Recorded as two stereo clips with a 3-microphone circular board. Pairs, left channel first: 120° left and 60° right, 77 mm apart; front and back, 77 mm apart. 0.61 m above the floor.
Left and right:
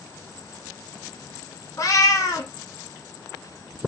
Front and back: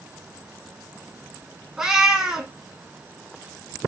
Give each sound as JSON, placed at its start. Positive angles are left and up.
{"t": 1.8, "sound": "a cat meowing", "azimuth_deg": 100, "distance_m": 0.7}